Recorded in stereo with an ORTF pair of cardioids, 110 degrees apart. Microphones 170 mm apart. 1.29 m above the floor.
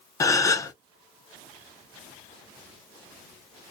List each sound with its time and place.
0.2 s a gasp: 20° left, 0.6 m